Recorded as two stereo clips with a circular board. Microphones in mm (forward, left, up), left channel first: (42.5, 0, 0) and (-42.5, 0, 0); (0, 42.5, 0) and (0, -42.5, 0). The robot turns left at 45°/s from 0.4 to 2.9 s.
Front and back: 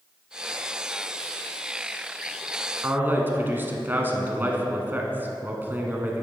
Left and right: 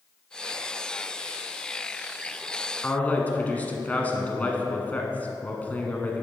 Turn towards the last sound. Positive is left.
turn(degrees=145)